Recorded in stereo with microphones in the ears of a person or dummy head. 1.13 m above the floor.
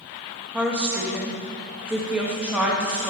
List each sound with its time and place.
0.5 s a woman speaking: 5° right (ahead or behind), 1.0 m